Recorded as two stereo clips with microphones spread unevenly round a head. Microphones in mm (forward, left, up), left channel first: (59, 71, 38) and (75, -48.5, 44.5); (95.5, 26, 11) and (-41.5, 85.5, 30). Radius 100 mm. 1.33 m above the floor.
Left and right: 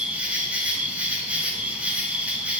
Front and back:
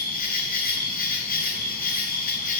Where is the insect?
Straight ahead, 4.5 m.